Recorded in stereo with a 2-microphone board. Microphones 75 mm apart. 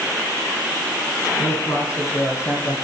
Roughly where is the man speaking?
Left.